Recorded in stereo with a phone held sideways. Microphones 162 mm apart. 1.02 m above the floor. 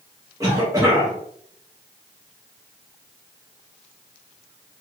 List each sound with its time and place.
0.4 s a cough: 20° right (ahead or behind), 1.1 m